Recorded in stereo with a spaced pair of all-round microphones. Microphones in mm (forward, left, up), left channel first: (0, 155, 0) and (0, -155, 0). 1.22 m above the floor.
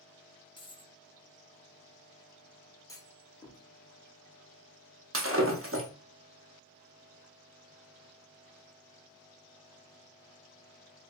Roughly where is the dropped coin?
Centre.